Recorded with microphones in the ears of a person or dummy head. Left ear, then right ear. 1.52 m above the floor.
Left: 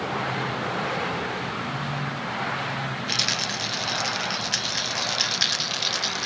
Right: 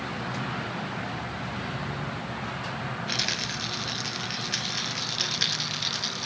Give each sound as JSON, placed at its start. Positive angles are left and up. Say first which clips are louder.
{"t": 3.1, "sound": "a rattle", "louder": "left 4 dB", "side_deg": 15, "distance_m": 0.6}